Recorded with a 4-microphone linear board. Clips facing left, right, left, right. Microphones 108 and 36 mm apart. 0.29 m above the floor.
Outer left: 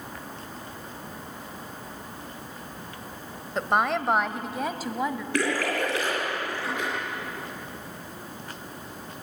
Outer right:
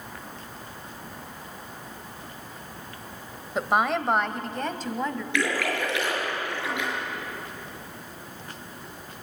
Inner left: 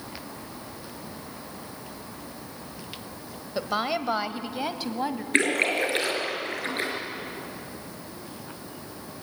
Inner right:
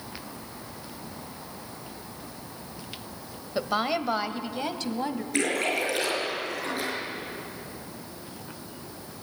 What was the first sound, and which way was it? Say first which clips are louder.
A woman speaking: outer right 1 dB, inner right 1 dB; 5° right (ahead or behind).